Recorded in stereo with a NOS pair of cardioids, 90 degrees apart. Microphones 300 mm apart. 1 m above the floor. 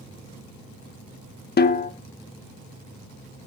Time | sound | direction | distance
1.6 | a snare drum | 30° left | 1.2 m